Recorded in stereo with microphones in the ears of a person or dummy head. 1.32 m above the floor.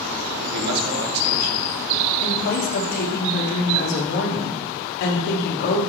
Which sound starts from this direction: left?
A woman speaking, at 2.2 s.